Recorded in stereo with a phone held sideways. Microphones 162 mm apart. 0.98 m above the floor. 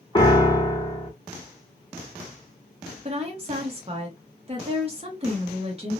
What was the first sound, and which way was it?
A piano, 25° left (ahead or behind).